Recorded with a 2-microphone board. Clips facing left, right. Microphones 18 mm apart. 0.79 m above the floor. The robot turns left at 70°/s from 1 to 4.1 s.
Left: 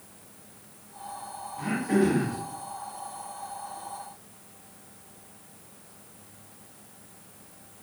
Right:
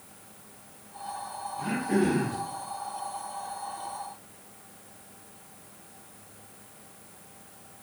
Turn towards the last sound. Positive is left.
turn(degrees=-130)